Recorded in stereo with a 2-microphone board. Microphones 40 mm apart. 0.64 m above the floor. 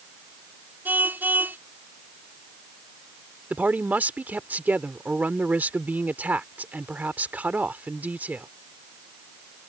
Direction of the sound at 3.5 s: 45° right (ahead or behind).